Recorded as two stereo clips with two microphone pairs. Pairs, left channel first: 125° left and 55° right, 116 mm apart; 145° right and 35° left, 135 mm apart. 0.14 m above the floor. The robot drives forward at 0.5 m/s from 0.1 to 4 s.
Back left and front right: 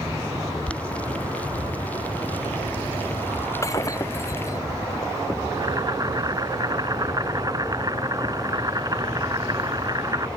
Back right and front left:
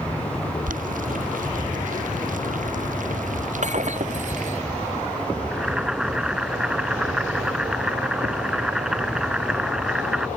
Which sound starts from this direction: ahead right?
Boiling, at 5.5 s.